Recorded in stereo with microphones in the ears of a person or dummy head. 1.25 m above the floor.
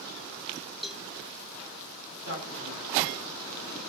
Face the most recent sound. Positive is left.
turn(degrees=-55)  # may be behind; listen again after turning